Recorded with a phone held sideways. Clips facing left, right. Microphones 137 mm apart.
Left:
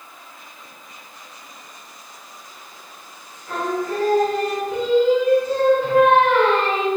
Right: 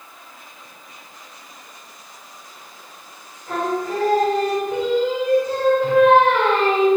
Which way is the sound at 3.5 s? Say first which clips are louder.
Right 1 dB; 15° right (ahead or behind).